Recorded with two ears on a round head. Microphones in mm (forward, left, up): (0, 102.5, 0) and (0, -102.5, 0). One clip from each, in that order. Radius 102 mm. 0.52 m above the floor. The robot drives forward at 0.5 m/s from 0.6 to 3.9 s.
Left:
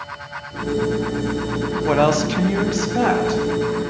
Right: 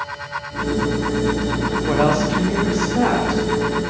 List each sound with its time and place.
1.9 s a woman speaking: 30° left (ahead or behind), 0.7 m; by 3.4 s 20° left (ahead or behind), 1.0 m